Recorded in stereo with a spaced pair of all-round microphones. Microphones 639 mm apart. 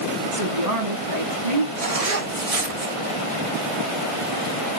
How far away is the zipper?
About 1.4 m.